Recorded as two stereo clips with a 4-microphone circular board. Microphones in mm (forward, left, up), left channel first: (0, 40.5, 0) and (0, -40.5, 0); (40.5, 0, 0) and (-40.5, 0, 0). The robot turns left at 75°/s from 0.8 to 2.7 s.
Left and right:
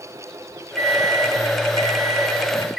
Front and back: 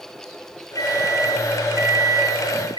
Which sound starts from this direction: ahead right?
A microwave, at 0.8 s.